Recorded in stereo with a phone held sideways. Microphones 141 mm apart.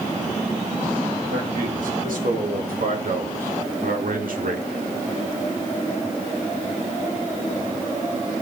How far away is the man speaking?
About 3.5 m.